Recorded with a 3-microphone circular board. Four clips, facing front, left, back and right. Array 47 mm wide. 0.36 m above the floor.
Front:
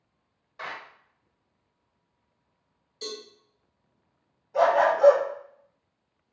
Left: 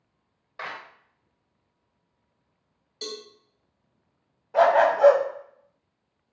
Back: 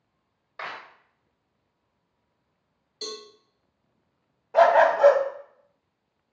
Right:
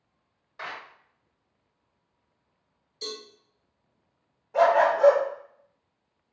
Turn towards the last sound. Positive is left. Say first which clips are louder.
# left 2 dB, back 4 dB
turn(degrees=155)